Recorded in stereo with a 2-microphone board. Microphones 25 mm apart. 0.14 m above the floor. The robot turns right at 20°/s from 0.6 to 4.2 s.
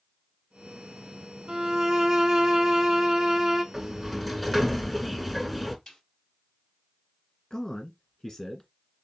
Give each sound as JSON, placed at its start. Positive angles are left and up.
{"t": 1.5, "sound": "a violin", "azimuth_deg": -80, "distance_m": 0.6}
{"t": 3.7, "sound": "a sliding door", "side_deg": -10, "distance_m": 0.7}
{"t": 5.9, "sound": "a snare drum", "side_deg": 20, "distance_m": 3.0}
{"t": 7.5, "sound": "a man speaking", "side_deg": 25, "distance_m": 1.5}